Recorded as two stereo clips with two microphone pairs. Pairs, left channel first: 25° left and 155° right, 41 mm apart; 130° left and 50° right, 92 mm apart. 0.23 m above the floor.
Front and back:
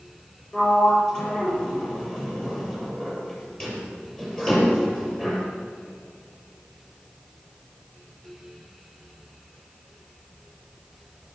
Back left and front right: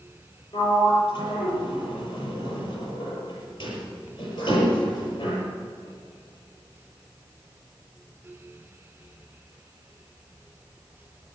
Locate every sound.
0.5 s a sliding door: 95° left, 7 m